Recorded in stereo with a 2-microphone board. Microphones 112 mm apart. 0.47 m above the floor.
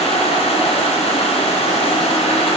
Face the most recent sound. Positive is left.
turn(degrees=60)  # may be behind; listen again after turning